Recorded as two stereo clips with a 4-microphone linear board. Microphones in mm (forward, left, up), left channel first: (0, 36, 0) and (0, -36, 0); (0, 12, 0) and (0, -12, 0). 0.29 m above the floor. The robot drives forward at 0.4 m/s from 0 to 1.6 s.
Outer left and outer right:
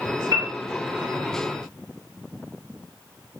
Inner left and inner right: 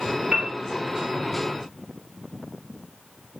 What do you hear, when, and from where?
0.3 s a piano: 60° right (ahead or behind), 1.6 m; by 0.5 s 65° right (ahead or behind), 1.5 m